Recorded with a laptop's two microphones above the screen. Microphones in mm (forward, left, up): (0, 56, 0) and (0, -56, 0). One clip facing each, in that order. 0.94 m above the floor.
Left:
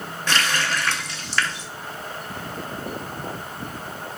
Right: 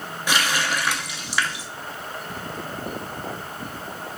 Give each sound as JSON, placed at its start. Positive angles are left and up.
{"t": 0.3, "sound": "a running tap", "side_deg": -10, "distance_m": 0.6}